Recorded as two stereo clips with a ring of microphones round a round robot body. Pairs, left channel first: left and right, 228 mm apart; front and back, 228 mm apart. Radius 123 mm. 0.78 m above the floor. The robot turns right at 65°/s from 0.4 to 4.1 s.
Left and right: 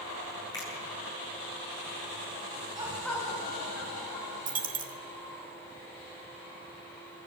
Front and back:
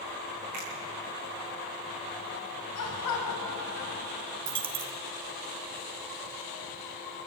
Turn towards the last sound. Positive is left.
turn(degrees=-145)